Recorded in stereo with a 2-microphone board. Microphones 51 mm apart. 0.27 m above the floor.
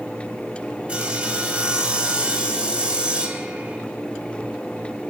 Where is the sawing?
20° right (ahead or behind), 1.1 m.